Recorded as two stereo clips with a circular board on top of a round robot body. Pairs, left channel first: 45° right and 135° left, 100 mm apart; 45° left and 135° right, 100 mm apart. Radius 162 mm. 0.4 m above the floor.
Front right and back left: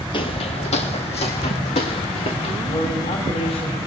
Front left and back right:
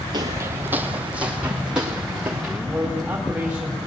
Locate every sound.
0.1 s footsteps: 90° right, 0.5 m; by 2.6 s 50° right, 3 m
2.7 s a man speaking: 60° right, 2.5 m